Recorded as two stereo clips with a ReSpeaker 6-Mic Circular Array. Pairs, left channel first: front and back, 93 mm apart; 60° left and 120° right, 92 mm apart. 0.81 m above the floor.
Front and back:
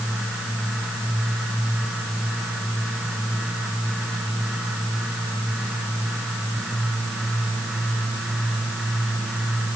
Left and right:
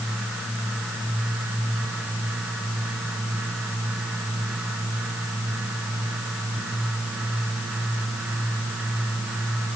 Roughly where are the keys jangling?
I don't hear keys jangling.